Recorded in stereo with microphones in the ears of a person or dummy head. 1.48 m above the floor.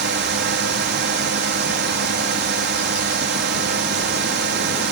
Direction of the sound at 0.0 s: 55° right (ahead or behind).